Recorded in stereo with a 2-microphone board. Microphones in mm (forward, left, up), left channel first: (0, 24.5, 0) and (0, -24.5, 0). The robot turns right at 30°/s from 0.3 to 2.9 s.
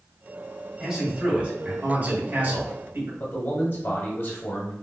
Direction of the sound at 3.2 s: 45° left (ahead or behind).